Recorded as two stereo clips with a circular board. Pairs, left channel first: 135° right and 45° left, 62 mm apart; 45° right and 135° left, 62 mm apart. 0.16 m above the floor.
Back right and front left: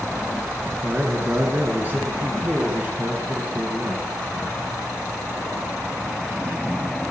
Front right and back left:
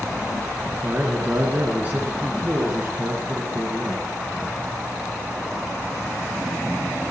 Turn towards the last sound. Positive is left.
turn(degrees=90)